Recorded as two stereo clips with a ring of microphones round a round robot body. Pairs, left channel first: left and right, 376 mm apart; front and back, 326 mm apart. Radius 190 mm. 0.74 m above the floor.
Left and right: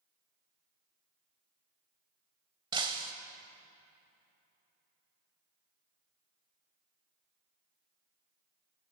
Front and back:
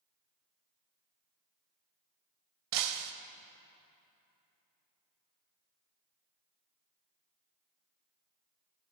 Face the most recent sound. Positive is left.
turn(degrees=-165)